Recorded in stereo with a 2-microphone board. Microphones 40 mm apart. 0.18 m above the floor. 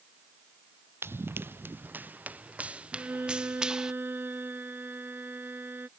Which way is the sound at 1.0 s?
75° right (ahead or behind).